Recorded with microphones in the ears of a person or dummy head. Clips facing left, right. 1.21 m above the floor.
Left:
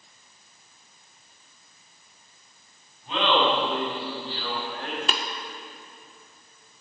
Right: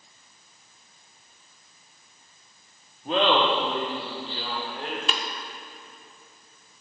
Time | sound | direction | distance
3.0 | laughter | 45° right (ahead or behind) | 2 m
5.1 | tapping | 45° left (ahead or behind) | 1.0 m